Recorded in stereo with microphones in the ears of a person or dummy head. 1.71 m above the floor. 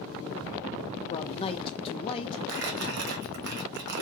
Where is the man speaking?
30° left (ahead or behind), 0.6 m.